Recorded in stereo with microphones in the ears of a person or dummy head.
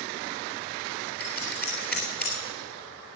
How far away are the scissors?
About 3 m.